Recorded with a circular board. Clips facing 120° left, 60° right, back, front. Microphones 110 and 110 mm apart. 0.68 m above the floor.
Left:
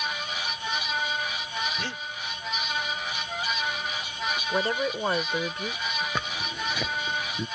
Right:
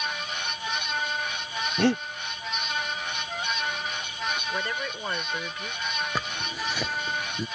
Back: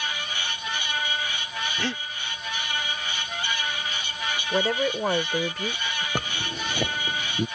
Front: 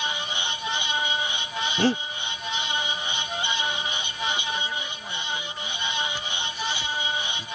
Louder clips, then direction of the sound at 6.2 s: Even, back 2 dB; 145° right.